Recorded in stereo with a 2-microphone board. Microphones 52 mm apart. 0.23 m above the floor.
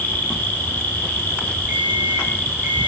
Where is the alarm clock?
35° right (ahead or behind), 4.5 m.